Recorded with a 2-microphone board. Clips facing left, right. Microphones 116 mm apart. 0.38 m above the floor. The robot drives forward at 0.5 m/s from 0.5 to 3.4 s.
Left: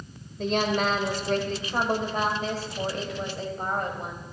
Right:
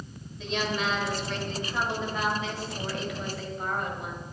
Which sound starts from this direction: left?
A woman speaking, at 0.4 s.